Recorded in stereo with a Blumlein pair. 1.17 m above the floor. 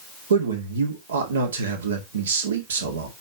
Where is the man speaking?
65° right, 2 m.